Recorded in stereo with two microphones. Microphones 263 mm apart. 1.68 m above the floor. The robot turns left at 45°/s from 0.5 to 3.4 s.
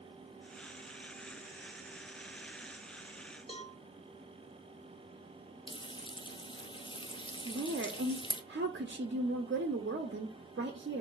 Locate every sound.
3.5 s a cowbell: 20° left (ahead or behind), 1.7 m
5.7 s frying: 20° left (ahead or behind), 0.6 m
7.5 s a woman speaking: 45° right (ahead or behind), 0.7 m